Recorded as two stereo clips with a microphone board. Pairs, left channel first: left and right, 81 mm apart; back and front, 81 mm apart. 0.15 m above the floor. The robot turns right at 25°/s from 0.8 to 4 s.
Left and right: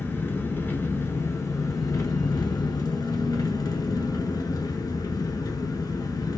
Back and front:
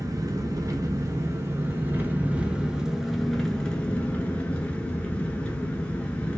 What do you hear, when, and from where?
0.0 s an engine running: 30° left, 0.8 m; by 6.4 s 110° left, 0.8 m